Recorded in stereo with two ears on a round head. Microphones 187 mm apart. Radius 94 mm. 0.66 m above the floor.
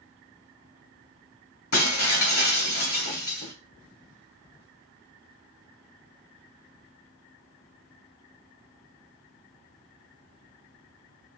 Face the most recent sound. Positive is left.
turn(degrees=80)